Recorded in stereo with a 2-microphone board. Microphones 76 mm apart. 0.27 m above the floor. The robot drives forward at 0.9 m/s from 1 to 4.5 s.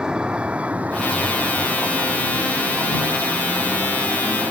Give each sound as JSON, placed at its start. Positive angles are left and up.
{"t": 0.0, "sound": "a vehicle", "side_deg": -10}